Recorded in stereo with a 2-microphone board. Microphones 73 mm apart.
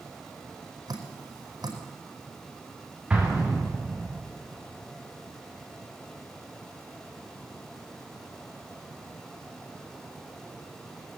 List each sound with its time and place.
0.9 s dripping: 80° right, 5 m
3.1 s an explosion: 15° right (ahead or behind), 7.5 m